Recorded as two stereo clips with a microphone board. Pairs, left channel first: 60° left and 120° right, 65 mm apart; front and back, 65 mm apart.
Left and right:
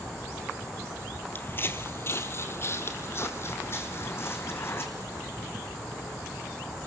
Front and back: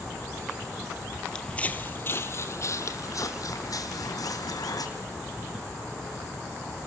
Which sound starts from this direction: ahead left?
Footsteps, at 1.4 s.